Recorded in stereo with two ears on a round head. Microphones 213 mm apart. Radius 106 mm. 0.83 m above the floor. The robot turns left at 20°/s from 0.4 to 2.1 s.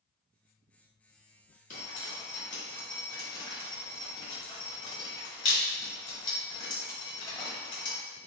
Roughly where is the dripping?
Left.